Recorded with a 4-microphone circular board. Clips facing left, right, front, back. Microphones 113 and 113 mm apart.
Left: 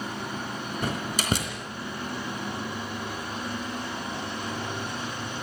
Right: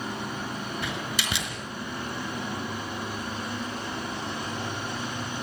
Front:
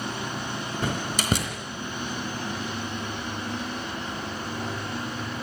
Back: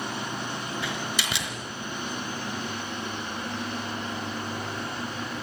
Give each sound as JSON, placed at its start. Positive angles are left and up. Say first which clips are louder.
{"t": 0.8, "sound": "a door slam", "louder": "left 2 dB, front 3 dB", "azimuth_deg": 45, "distance_m": 3.5}